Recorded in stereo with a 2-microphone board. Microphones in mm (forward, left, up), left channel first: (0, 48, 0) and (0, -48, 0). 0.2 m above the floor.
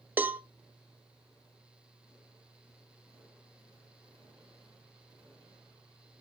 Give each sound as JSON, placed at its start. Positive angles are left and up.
{"t": 0.2, "sound": "a cowbell", "side_deg": -20, "distance_m": 0.5}